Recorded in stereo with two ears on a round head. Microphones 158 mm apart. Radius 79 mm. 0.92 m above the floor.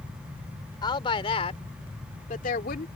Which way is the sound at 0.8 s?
25° left (ahead or behind).